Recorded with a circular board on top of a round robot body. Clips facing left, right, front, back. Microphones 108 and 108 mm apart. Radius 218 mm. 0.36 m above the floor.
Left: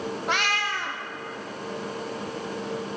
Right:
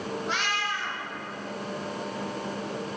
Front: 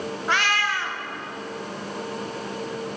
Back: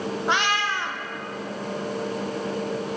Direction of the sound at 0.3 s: 110° left.